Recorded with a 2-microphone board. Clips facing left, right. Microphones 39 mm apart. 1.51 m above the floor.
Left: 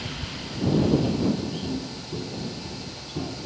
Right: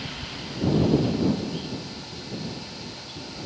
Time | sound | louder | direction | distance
1.6 | footsteps | left 3 dB | 60° left (ahead or behind) | ?